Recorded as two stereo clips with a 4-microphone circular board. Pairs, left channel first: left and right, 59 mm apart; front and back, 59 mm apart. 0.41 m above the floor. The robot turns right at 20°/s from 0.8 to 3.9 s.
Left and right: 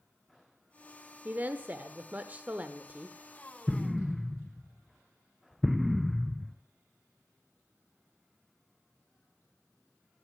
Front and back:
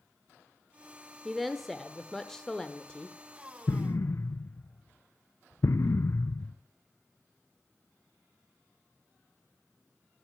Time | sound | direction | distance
1.2 | a woman speaking | 90° right | 0.9 m
3.7 | an explosion | 5° right | 0.5 m